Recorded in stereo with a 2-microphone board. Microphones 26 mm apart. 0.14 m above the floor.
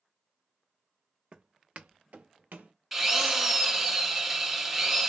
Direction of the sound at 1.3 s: 40° right (ahead or behind).